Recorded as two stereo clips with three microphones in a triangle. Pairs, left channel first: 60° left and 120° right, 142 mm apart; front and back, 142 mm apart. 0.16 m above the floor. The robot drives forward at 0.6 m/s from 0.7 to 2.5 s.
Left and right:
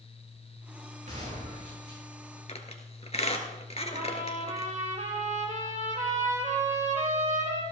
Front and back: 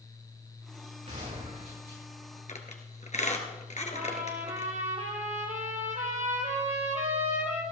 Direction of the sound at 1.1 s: 145° right.